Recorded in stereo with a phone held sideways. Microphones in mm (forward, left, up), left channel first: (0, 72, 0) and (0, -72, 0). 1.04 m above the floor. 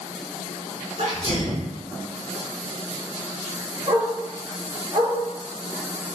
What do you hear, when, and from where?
1.0 s a sneeze: 45° right (ahead or behind), 1.4 m
3.9 s a dog barking: 35° right (ahead or behind), 1.0 m